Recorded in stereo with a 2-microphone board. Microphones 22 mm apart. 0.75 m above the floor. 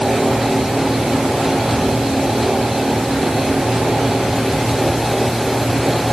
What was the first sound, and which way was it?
Only background noise.